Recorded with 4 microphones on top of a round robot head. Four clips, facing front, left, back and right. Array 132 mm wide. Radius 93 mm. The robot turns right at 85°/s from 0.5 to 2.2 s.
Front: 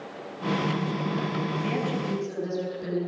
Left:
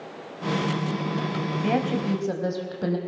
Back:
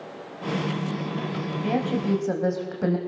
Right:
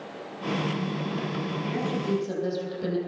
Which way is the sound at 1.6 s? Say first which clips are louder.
Left 6 dB, back 4 dB; 105° left.